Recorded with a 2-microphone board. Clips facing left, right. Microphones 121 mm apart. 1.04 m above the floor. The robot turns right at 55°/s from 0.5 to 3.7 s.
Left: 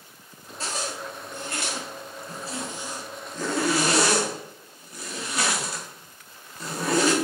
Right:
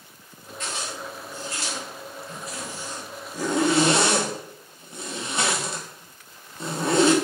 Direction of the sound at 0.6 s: 35° left (ahead or behind).